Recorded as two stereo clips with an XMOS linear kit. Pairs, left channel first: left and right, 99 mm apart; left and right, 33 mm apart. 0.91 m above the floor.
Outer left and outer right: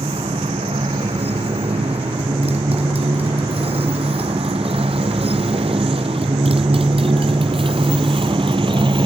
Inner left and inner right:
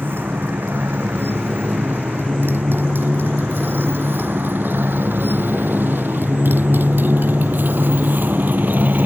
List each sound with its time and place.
0.0 s a motorcycle: 85° right; by 9.1 s 60° right (ahead or behind)